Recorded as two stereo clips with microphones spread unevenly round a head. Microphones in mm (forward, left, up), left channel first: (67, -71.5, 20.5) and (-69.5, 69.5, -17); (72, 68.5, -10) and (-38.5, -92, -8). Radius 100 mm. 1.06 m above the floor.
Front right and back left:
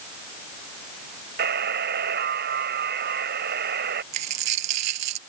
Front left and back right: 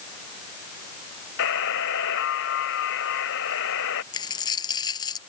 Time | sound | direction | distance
1.4 | a buzzer | 90° left | ?
4.1 | a dropped coin | 125° left | ?